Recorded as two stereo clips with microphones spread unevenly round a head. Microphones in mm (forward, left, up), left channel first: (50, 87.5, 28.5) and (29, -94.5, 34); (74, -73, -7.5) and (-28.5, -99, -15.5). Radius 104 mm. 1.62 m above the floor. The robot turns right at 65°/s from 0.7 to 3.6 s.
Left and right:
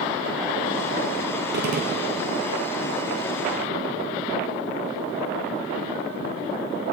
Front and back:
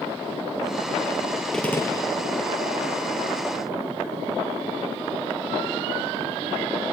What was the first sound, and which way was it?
A gunshot, 70° right.